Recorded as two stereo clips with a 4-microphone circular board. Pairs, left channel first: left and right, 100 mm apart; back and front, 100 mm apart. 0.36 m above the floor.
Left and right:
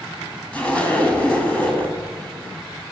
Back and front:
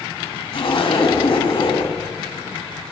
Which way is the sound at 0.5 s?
165° left.